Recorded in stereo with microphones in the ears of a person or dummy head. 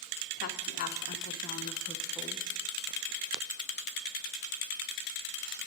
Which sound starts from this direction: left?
A woman speaking, at 0.4 s.